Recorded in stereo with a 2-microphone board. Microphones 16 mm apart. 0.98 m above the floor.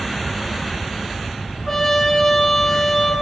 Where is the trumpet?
10° left (ahead or behind), 9.5 m.